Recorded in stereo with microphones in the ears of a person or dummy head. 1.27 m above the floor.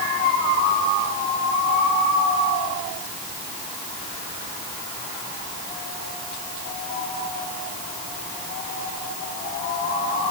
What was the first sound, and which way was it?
Only background noise.